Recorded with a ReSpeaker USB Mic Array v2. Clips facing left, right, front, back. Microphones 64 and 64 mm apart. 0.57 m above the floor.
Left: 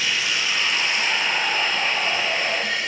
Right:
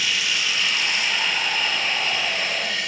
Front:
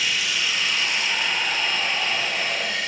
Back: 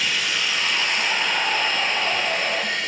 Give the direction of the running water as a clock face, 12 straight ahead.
7 o'clock.